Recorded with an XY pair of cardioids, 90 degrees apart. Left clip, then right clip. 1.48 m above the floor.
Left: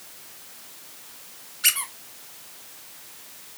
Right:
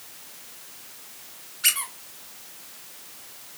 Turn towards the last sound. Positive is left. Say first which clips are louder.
# left 1 dB
turn(degrees=5)